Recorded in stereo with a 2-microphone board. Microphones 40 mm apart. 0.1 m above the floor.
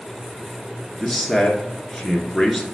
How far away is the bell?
I don't hear a bell.